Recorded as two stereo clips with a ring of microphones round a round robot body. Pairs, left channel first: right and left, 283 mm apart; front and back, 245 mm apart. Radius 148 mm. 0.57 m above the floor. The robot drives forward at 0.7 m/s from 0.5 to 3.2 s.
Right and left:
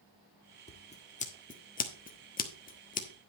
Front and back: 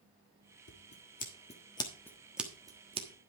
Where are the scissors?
25° right, 1.7 m; by 3.1 s 135° right, 1.3 m.